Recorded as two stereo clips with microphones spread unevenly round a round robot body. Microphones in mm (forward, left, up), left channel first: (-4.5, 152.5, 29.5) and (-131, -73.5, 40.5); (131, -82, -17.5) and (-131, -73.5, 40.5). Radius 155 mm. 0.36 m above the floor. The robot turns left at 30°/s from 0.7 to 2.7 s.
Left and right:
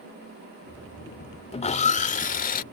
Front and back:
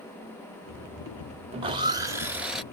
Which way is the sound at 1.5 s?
105° left.